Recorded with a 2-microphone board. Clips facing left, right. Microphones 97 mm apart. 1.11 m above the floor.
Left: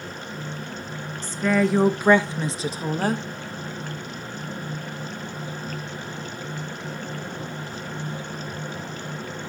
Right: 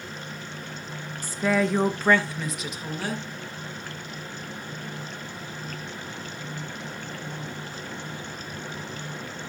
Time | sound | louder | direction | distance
1.2 | a woman speaking | left 2 dB | 10° right (ahead or behind) | 1.1 m